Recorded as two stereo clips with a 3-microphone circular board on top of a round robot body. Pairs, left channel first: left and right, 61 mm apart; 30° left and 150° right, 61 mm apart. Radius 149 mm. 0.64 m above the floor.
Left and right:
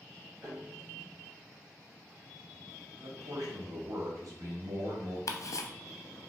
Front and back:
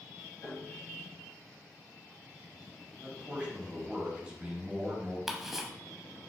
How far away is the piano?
About 1.8 m.